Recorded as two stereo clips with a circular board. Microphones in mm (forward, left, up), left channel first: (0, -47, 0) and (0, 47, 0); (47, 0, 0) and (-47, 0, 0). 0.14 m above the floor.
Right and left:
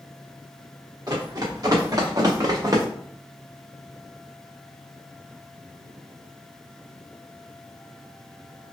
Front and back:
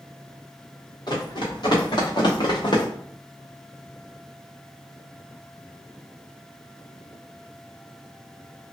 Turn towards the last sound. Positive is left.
turn(degrees=40)